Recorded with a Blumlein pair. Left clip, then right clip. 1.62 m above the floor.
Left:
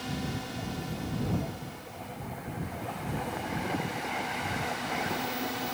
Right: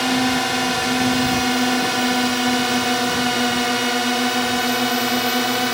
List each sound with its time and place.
0.0 s a drone: 50° right; by 5.8 s 35° right